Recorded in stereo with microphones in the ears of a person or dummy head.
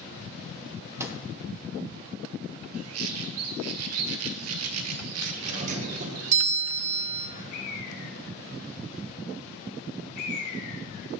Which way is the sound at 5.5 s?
40° right (ahead or behind).